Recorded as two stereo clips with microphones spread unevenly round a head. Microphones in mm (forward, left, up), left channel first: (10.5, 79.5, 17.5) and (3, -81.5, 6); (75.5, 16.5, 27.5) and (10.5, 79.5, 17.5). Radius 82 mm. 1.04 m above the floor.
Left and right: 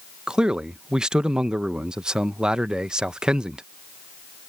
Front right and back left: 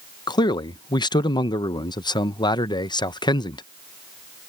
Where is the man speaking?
10° right.